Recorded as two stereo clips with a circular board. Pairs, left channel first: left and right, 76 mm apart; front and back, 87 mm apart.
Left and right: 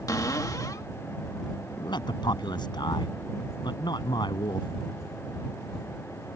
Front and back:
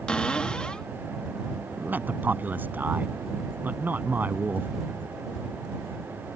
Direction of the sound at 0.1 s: 75° left.